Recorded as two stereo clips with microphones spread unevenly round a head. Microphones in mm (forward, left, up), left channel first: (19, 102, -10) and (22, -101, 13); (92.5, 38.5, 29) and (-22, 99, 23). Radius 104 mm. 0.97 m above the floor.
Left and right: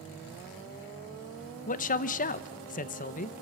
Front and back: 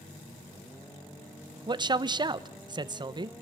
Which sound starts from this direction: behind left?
A man speaking, at 1.7 s.